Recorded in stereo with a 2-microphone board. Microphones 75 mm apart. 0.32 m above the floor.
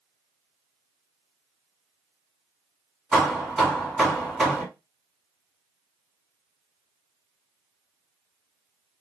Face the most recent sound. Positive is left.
turn(degrees=0)  # may be behind; listen again after turning